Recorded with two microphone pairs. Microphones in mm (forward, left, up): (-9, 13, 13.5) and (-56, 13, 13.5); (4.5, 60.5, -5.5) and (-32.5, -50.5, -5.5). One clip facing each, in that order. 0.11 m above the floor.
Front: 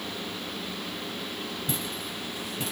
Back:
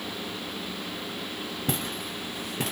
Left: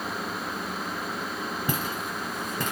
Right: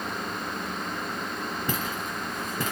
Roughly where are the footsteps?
Behind left.